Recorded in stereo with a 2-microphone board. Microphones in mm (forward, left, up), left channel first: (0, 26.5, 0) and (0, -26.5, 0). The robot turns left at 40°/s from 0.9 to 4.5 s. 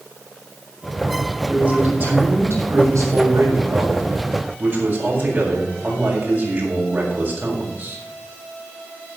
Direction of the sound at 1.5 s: 15° right.